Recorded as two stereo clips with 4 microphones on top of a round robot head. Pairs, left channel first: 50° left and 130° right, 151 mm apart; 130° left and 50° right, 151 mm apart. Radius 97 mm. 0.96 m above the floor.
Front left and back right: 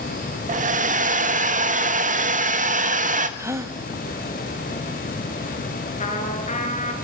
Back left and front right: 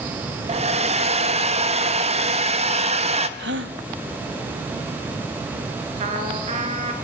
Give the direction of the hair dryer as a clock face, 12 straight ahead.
3 o'clock.